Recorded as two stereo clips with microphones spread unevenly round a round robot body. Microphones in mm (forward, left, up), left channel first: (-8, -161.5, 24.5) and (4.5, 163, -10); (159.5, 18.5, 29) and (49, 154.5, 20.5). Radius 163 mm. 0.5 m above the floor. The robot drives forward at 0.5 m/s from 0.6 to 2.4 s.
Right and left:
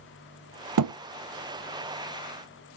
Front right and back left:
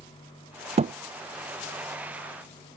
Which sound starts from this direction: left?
A thud, at 0.8 s.